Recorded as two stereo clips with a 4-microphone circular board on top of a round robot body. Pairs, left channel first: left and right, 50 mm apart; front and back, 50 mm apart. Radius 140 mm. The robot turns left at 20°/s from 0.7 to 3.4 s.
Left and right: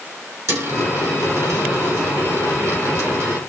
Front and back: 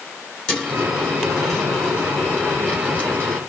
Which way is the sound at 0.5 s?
75° right.